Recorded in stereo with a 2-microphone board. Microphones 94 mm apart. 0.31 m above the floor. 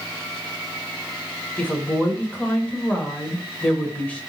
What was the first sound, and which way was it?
A woman speaking, 15° left (ahead or behind).